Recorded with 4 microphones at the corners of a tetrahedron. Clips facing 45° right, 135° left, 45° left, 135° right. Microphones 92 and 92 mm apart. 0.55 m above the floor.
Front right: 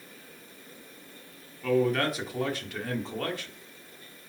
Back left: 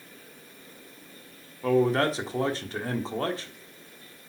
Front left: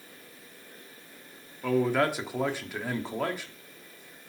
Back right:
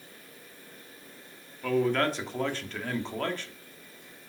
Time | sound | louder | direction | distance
1.6 | a man speaking | back left 3 dB, front left 1 dB | 115° left | 1.2 m